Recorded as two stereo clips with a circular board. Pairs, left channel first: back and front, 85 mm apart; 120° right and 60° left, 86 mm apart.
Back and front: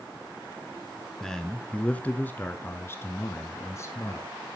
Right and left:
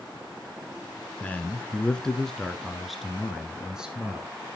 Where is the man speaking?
100° right, 1.1 m; by 4.3 s 135° left, 1.7 m.